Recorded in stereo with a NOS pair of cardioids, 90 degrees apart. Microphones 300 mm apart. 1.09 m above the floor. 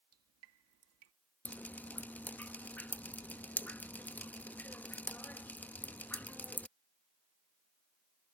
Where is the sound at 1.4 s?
5° left.